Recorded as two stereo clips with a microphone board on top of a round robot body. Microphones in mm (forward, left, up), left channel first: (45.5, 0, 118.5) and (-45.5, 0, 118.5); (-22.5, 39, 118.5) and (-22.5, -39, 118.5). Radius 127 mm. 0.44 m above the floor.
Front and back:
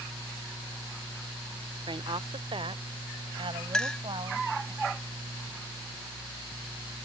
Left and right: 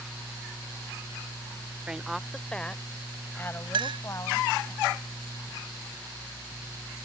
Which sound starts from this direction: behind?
A woman speaking, at 1.9 s.